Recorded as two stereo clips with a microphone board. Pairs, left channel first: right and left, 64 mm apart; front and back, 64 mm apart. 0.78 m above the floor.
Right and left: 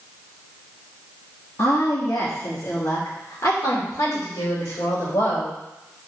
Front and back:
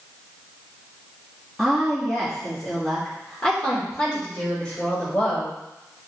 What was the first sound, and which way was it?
A woman speaking, 80° right.